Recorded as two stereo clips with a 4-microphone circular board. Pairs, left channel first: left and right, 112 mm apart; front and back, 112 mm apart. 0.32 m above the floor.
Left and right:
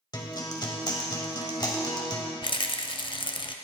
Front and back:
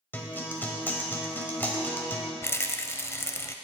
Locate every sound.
0.1 s a guitar: 65° left, 1.3 m
2.4 s a rattle: 60° left, 0.5 m